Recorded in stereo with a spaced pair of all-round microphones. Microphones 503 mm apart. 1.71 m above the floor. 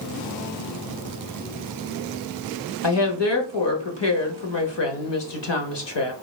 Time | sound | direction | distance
2.8 | a woman speaking | 55° left (ahead or behind) | 0.8 m